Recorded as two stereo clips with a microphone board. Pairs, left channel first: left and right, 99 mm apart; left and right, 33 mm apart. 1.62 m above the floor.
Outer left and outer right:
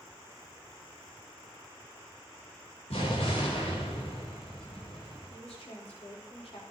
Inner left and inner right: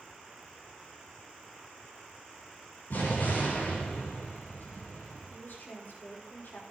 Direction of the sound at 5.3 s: 80° left.